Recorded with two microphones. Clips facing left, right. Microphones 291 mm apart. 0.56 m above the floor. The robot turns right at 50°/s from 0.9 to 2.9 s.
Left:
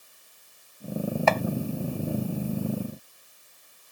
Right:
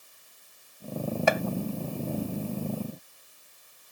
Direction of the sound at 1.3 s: 15° right (ahead or behind).